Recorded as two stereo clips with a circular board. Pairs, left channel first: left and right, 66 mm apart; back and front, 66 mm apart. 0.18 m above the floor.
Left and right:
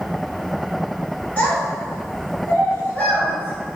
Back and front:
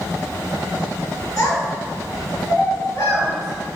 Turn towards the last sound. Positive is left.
turn(degrees=155)